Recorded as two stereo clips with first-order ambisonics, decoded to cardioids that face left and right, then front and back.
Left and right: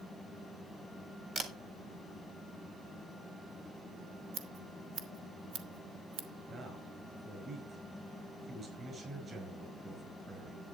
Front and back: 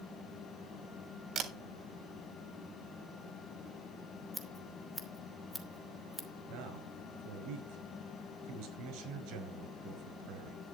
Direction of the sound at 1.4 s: 140° right.